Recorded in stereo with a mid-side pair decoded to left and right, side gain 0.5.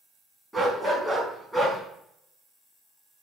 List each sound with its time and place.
0.5 s a dog barking: 10° right, 5.5 m; by 1.8 s straight ahead, 5.5 m